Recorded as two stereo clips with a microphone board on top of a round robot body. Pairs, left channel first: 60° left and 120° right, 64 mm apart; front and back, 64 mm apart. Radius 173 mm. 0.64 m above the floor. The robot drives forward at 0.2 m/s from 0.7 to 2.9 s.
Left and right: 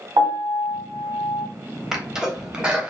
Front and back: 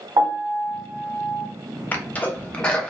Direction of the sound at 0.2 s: 145° right.